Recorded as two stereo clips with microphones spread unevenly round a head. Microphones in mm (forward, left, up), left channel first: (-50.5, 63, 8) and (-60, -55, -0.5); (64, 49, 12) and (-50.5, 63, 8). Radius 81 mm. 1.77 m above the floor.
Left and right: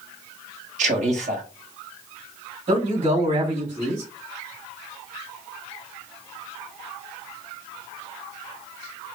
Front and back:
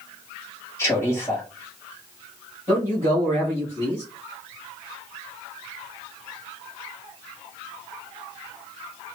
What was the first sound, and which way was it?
A man speaking, 75° right.